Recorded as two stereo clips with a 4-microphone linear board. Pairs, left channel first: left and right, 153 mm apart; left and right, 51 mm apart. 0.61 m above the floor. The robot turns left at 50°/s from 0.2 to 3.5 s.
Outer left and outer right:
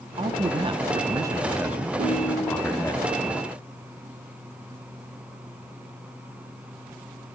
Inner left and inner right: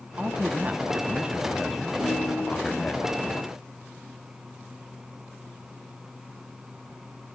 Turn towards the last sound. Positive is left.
turn(degrees=-130)